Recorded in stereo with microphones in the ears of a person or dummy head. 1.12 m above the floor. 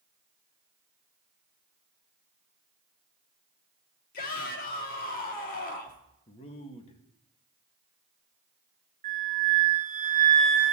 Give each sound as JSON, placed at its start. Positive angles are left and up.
{"t": 4.1, "sound": "a shout", "side_deg": 45, "distance_m": 2.5}
{"t": 6.3, "sound": "a man speaking", "side_deg": 30, "distance_m": 1.5}
{"t": 9.0, "sound": "a flute", "side_deg": -35, "distance_m": 1.3}